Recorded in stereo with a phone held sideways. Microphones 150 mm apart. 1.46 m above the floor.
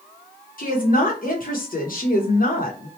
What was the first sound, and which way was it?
A woman speaking, 70° left (ahead or behind).